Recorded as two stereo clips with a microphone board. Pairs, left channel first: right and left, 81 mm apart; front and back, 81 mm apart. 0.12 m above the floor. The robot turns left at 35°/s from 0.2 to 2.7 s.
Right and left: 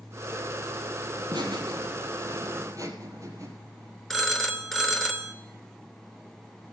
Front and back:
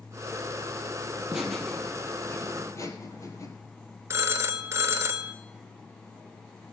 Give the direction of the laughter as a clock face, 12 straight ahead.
9 o'clock.